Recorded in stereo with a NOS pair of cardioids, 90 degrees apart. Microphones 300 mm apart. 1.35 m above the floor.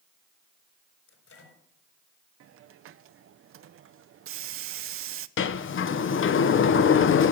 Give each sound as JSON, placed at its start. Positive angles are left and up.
{"t": 1.1, "sound": "a microwave", "azimuth_deg": 50, "distance_m": 4.0}
{"t": 2.4, "sound": "a hiss", "azimuth_deg": -50, "distance_m": 0.5}
{"t": 5.4, "sound": "a sliding door", "azimuth_deg": 45, "distance_m": 0.7}